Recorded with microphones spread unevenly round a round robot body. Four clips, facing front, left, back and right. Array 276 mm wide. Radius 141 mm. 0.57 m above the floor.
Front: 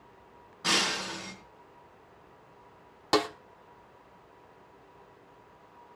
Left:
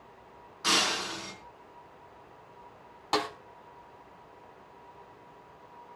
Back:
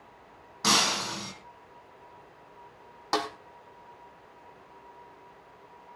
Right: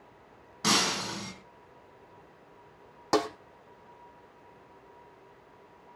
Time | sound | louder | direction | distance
0.6 | breaking glass | right 1 dB, back 4 dB | 120° right | 3.5 m
3.1 | a snare drum | right 3 dB, front 3 dB | 50° right | 1.2 m